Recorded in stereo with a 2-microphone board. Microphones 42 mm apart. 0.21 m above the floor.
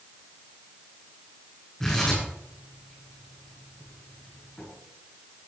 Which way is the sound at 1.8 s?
15° left (ahead or behind).